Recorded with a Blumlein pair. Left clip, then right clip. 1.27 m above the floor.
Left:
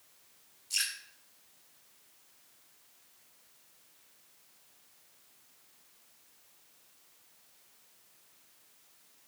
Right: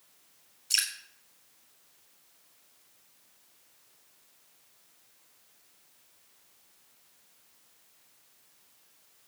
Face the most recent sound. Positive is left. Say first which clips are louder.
# right 4 dB
turn(degrees=-60)